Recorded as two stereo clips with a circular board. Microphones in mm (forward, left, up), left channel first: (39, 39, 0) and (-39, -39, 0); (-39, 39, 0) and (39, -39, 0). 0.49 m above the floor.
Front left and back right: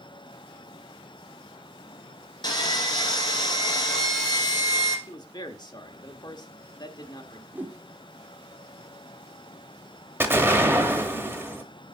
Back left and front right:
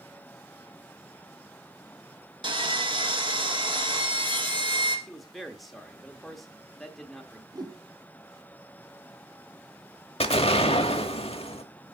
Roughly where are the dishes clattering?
No dishes clattering in this recording.